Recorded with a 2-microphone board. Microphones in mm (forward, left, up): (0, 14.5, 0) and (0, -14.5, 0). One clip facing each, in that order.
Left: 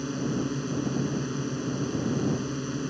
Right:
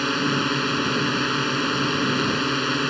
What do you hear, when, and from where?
0.0 s a drone: 75° right (ahead or behind)